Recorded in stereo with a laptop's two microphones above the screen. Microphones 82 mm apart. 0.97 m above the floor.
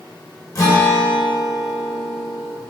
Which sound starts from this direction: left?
A guitar, at 0.6 s.